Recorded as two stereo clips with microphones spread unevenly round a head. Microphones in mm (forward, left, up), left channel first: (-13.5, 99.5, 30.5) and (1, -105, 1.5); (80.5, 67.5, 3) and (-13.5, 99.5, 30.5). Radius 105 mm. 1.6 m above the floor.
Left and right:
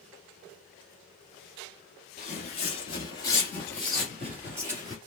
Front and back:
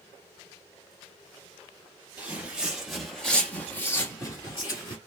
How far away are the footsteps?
About 2 m.